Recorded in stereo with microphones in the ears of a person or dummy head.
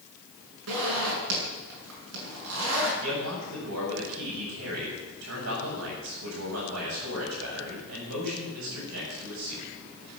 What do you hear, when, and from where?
0.7 s a zipper: 85° right, 7.5 m
3.0 s a man speaking: 90° right, 7 m